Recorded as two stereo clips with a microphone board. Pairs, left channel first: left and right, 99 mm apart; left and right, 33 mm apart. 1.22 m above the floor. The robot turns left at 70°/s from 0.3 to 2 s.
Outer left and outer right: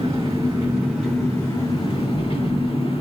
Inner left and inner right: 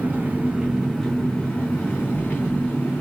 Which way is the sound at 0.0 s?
125° right.